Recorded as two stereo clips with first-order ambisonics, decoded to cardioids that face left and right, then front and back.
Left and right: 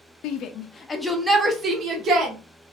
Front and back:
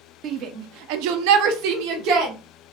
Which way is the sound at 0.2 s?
130° left.